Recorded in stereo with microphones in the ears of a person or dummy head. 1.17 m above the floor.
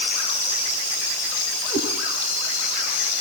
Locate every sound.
1.7 s a cat meowing: 10° left (ahead or behind), 8 m